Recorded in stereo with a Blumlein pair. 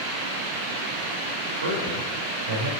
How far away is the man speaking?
About 4 m.